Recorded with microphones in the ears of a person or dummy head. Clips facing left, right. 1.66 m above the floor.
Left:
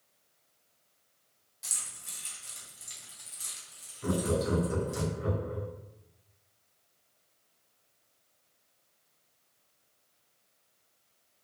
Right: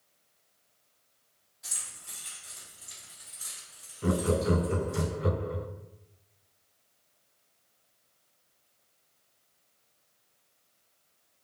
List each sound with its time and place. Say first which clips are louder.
1.6 s keys jangling: even; 55° left (ahead or behind), 1.8 m
4.0 s laughter: right 3 dB; 55° right (ahead or behind), 0.5 m